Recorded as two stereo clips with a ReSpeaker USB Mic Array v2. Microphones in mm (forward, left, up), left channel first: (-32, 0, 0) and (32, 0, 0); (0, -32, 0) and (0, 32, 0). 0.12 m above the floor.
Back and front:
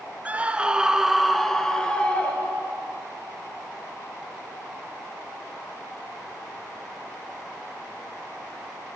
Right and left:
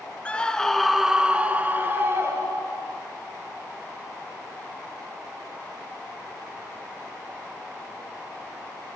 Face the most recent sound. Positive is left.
turn(degrees=120)